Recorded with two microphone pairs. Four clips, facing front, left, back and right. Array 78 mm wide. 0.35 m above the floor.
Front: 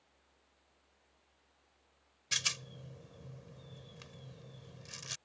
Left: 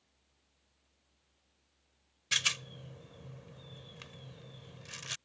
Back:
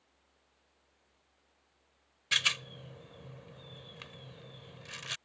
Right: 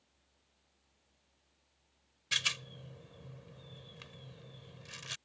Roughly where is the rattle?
Behind.